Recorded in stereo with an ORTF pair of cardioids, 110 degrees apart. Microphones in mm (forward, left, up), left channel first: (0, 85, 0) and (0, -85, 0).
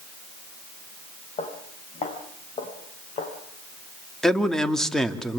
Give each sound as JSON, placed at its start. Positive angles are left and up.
{"t": 1.4, "sound": "footsteps", "azimuth_deg": 40, "distance_m": 5.0}
{"t": 4.2, "sound": "a man speaking", "azimuth_deg": 5, "distance_m": 2.5}